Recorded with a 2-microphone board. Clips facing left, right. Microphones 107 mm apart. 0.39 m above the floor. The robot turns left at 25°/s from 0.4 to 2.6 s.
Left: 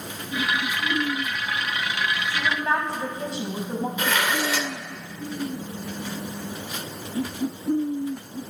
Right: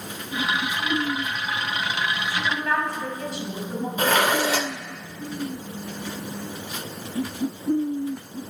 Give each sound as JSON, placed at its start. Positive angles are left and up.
{"t": 2.3, "sound": "a woman speaking", "side_deg": 20, "distance_m": 3.0}
{"t": 4.0, "sound": "dishes clattering", "side_deg": -40, "distance_m": 0.5}